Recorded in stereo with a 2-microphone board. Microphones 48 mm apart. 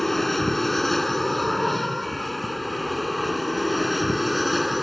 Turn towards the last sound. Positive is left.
turn(degrees=0)  # may be behind; listen again after turning